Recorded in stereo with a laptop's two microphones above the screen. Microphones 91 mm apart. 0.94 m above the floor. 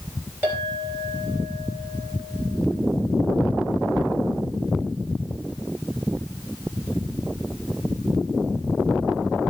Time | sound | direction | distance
0.4 | a clink | 25° right (ahead or behind) | 4 m